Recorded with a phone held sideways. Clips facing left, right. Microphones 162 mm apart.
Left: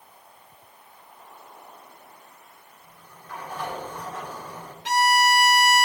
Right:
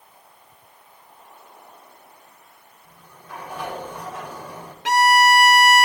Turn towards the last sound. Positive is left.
turn(degrees=-80)